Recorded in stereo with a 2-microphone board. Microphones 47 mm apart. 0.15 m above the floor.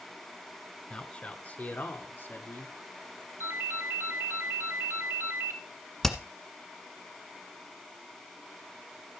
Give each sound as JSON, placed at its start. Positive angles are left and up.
{"t": 0.9, "sound": "a man speaking", "side_deg": 20, "distance_m": 1.3}
{"t": 3.4, "sound": "a ringtone", "side_deg": -60, "distance_m": 2.0}
{"t": 6.0, "sound": "hammering", "side_deg": 5, "distance_m": 1.5}